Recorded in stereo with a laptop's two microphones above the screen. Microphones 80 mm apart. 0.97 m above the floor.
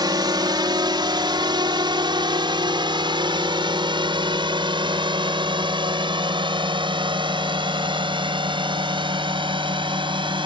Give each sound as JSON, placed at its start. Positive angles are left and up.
{"t": 0.0, "sound": "a drone", "side_deg": -60}